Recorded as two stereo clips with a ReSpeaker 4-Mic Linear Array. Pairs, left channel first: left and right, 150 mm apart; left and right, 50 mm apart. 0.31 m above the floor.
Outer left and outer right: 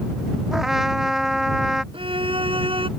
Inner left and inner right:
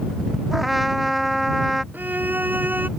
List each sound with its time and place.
0.5 s a trumpet: centre (ahead or behind)
1.9 s a violin: 35° right (ahead or behind)